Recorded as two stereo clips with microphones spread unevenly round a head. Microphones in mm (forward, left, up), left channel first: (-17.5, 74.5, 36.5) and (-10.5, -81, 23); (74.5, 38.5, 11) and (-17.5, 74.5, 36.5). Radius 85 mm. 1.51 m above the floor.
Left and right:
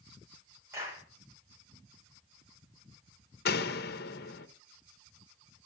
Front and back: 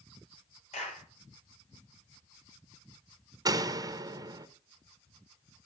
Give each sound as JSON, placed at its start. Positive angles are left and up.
{"t": 0.7, "sound": "a clap", "azimuth_deg": -10, "distance_m": 7.5}
{"t": 3.5, "sound": "a door slam", "azimuth_deg": 115, "distance_m": 1.1}